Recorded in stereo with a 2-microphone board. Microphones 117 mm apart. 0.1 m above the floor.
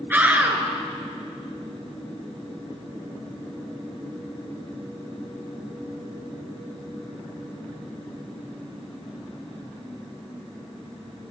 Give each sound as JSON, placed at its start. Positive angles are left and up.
{"t": 0.1, "sound": "a scream", "side_deg": -15, "distance_m": 1.8}